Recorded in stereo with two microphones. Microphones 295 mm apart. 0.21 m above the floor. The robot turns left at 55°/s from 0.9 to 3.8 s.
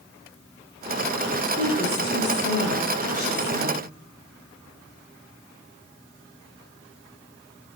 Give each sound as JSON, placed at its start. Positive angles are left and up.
{"t": 1.6, "sound": "a woman speaking", "azimuth_deg": 160, "distance_m": 2.0}